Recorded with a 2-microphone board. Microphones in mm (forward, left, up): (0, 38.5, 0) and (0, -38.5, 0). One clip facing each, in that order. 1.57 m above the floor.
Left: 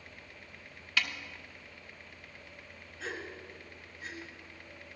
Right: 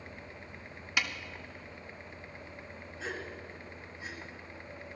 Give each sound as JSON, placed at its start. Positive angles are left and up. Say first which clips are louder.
{"t": 1.0, "sound": "a snare drum", "louder": "even", "side_deg": -15, "distance_m": 0.8}
{"t": 3.0, "sound": "a gasp", "louder": "even", "side_deg": 0, "distance_m": 2.5}